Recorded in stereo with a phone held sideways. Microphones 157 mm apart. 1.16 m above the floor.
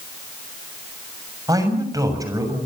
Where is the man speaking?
20° right (ahead or behind), 6.5 m.